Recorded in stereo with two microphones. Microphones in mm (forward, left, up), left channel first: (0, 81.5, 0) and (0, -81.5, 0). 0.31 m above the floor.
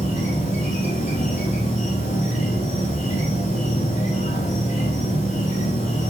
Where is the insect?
50° left (ahead or behind), 0.7 m.